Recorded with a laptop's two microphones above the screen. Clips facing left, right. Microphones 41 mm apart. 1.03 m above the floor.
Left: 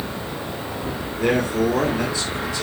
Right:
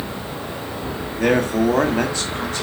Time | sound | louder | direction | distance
1.2 | a man speaking | right 2 dB | 75° right (ahead or behind) | 1.8 m